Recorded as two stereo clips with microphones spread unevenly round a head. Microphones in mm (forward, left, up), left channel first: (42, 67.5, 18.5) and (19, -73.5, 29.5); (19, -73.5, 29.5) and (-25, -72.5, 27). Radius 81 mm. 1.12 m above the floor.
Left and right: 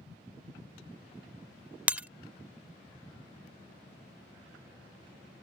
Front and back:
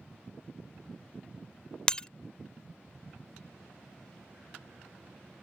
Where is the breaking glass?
40° right.